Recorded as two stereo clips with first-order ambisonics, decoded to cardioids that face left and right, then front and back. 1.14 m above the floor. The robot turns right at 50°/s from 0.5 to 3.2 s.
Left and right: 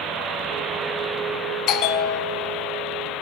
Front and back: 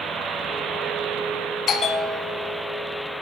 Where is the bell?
55° left, 1.0 m; by 2.6 s 105° left, 1.0 m.